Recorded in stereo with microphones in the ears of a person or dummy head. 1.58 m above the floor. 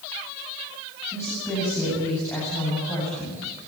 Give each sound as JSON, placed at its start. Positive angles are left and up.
{"t": 1.1, "sound": "a woman speaking", "side_deg": 20, "distance_m": 9.0}